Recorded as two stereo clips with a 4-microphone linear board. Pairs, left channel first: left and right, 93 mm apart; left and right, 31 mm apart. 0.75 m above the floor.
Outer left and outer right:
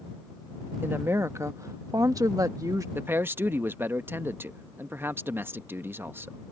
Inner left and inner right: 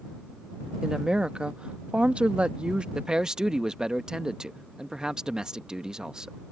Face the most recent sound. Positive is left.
turn(degrees=-25)  # may be behind; listen again after turning